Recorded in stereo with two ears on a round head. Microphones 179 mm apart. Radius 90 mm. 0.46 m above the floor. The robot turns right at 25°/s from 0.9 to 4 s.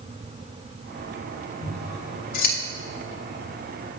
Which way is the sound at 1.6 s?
60° left (ahead or behind).